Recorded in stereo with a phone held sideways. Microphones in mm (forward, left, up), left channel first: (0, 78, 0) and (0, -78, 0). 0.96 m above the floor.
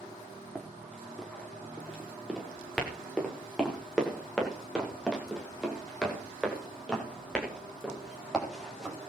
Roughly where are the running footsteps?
Centre.